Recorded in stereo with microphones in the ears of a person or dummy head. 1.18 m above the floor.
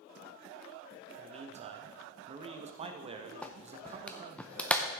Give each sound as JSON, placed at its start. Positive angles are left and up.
{"t": 1.2, "sound": "a man speaking", "side_deg": -40, "distance_m": 1.0}
{"t": 3.4, "sound": "a clap", "side_deg": 0, "distance_m": 0.7}